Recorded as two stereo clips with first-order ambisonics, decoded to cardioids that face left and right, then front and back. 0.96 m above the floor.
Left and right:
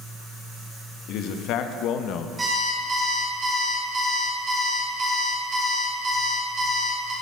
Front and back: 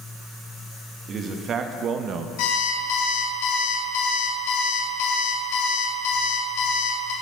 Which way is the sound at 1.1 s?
120° left.